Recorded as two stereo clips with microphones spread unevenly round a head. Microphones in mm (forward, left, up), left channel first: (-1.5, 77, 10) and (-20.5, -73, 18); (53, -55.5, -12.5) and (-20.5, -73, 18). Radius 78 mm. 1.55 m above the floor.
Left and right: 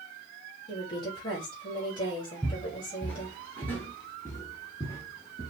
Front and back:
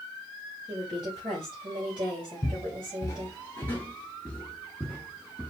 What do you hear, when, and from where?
0.7 s a woman speaking: 145° left, 3 m
2.4 s footsteps: 5° right, 1.6 m; by 5.5 s 145° left, 1.9 m